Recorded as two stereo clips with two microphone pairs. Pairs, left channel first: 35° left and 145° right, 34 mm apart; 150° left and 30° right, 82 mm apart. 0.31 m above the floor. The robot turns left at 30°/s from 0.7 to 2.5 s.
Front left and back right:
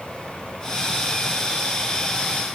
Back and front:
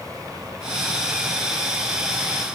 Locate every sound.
Only background noise.